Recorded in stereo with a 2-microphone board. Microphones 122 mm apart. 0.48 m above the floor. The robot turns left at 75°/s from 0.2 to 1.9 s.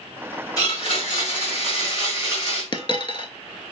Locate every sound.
0.6 s a blender: 150° left, 1.7 m; by 2.6 s 50° left, 1.7 m
2.7 s a dropped coin: 45° left (ahead or behind), 0.5 m